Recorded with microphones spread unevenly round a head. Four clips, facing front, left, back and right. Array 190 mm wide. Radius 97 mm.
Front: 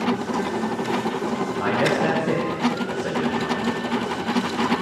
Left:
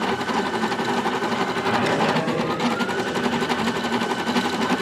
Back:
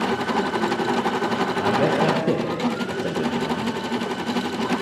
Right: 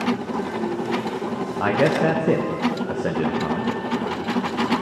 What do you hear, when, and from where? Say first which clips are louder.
1.6 s a man speaking: right 4 dB, back 1 dB; 120° right, 0.7 m